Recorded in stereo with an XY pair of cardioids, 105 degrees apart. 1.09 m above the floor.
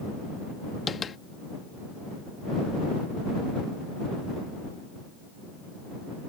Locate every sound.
0.9 s tapping: 45° left